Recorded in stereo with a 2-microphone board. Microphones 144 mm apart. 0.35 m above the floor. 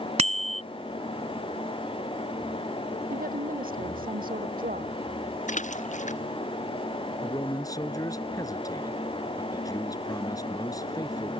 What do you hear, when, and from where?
0.2 s a bicycle bell: 50° right (ahead or behind)
3.1 s a woman speaking: 85° right
5.5 s a splash: 60° left (ahead or behind)
7.2 s a man speaking: 25° left (ahead or behind)